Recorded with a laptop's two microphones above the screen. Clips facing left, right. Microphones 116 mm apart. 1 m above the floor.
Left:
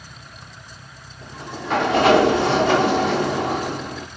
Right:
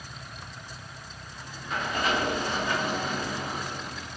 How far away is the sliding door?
About 1.1 m.